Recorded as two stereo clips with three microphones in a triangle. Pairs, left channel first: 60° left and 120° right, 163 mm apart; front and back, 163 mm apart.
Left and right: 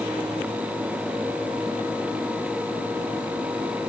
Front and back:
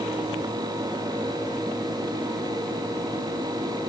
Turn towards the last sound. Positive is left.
No sound to turn to.